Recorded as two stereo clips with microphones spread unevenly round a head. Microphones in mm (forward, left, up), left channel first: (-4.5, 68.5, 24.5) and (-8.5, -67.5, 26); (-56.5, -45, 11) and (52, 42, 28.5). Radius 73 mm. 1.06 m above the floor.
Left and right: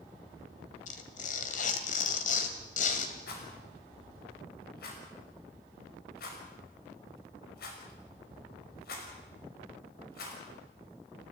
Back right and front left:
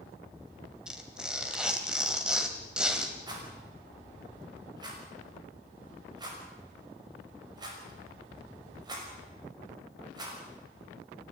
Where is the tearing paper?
120° left, 2.5 m.